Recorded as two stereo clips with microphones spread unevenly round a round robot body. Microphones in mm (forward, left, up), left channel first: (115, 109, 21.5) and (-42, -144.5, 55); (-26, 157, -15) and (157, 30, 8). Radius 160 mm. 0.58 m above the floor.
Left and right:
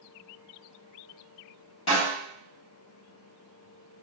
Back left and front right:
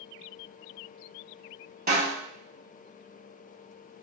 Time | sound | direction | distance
1.9 | a snare drum | 15° left | 1.9 m